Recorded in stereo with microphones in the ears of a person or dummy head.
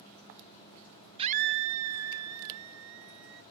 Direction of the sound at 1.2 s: 20° right (ahead or behind).